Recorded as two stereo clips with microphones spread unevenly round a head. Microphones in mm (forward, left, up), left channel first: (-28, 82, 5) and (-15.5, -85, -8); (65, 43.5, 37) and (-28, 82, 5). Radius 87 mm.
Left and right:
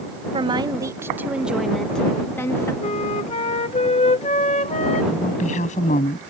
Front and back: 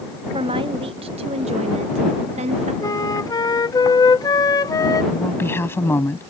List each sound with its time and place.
0.3 s a woman speaking: 145° right; by 2.7 s 170° left
2.8 s a flute: 35° left
5.1 s a woman speaking: 40° left